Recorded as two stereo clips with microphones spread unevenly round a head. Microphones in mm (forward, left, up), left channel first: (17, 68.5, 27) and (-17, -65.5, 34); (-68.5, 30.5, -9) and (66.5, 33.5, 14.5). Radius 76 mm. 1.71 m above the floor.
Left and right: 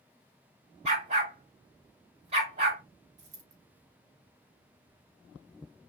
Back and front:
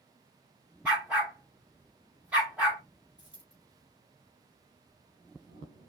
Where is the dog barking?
70° right, 1.9 m.